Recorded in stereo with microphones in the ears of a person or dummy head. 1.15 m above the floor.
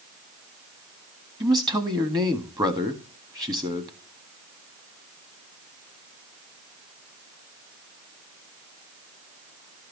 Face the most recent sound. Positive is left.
turn(degrees=-20)  # may be behind; listen again after turning